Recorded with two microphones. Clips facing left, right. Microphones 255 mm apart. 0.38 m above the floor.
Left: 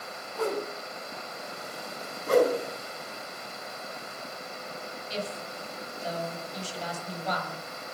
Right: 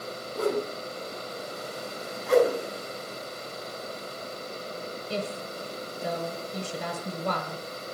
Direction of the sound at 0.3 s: 40° right (ahead or behind).